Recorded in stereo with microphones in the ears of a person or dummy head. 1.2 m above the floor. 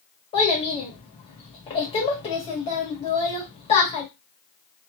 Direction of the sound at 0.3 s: 30° left (ahead or behind).